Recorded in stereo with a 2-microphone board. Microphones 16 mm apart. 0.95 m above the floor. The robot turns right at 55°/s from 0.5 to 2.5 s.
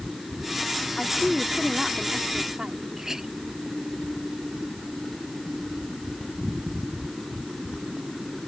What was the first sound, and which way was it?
A woman speaking, 150° left.